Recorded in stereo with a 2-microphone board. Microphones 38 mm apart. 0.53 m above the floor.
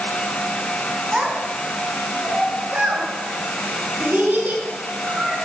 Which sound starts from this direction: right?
A child speaking, at 1.1 s.